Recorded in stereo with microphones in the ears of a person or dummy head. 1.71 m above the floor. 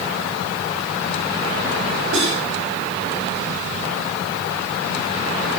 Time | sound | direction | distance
2.1 | cutlery clinking | 65° right (ahead or behind) | 5.5 m